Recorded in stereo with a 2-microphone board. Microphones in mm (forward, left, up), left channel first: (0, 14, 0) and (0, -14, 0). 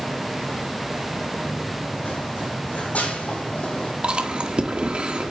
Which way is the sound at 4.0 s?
45° right (ahead or behind).